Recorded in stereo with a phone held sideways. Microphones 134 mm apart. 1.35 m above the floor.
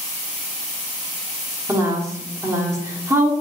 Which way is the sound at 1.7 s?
20° right (ahead or behind).